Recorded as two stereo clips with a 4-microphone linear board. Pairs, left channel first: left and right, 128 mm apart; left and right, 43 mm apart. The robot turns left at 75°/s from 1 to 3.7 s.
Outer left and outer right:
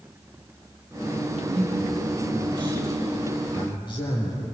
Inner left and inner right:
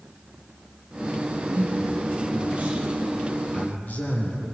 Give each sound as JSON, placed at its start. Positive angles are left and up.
{"t": 1.5, "sound": "a man speaking", "azimuth_deg": -60, "distance_m": 7.5}